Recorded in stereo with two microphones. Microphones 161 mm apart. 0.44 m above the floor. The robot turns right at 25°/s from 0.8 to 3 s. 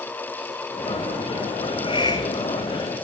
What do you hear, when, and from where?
1.6 s a hiss: 35° left (ahead or behind), 2.5 m; by 2.8 s 15° left (ahead or behind), 2.5 m